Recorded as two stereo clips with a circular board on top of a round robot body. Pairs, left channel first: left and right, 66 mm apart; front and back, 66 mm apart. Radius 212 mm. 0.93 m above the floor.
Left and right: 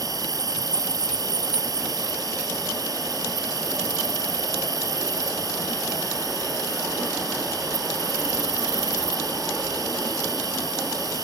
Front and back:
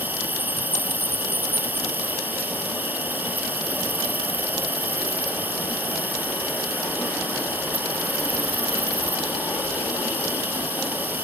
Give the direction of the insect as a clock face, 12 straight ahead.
4 o'clock.